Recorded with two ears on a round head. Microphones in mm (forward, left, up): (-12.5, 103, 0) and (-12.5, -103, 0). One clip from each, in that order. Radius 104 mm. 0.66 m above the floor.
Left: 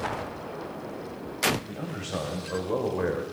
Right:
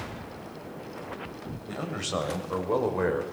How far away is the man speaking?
About 2.5 m.